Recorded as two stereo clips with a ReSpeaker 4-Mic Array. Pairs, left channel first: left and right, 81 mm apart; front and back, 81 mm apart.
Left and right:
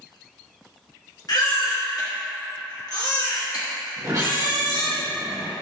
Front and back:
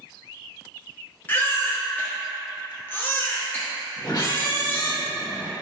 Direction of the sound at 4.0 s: 40° right.